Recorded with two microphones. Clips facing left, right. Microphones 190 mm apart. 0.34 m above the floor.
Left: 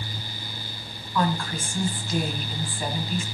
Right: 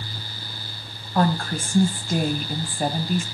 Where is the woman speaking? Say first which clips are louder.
Right 4 dB; 50° right (ahead or behind), 1.8 m.